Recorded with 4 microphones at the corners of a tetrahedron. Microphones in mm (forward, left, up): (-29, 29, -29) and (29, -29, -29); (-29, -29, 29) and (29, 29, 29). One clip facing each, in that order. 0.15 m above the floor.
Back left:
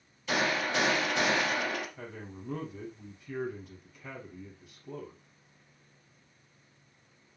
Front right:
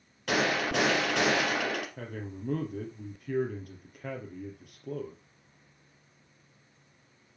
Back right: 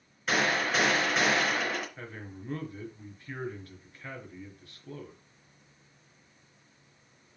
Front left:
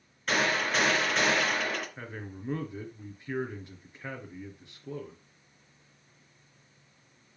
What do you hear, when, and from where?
0.3 s a gunshot: 50° right, 3 m
2.0 s a man speaking: 20° right, 2.5 m